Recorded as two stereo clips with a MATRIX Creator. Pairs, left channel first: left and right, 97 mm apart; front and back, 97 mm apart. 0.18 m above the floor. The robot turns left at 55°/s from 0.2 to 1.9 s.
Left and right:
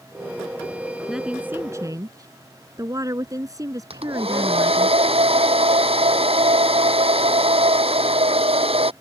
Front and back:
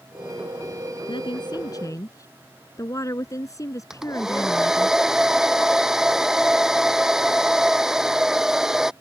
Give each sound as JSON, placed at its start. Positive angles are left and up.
{"t": 1.1, "sound": "a woman speaking", "azimuth_deg": 0}
{"t": 3.9, "sound": "a hair dryer", "azimuth_deg": -95}